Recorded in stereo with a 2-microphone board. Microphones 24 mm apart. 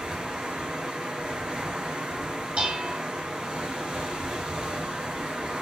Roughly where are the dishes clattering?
Right.